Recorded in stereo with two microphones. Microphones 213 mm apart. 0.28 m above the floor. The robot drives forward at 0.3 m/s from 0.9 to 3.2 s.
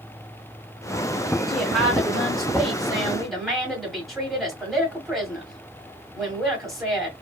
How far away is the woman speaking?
About 1.4 m.